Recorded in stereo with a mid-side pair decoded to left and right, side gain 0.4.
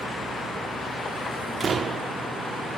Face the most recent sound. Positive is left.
turn(degrees=-50)